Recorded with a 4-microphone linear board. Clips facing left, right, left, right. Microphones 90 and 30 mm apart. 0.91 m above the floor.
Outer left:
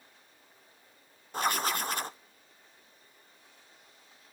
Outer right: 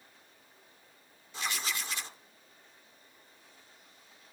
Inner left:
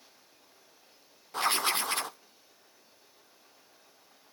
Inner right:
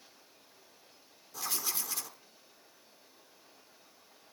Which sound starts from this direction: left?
Writing, at 1.3 s.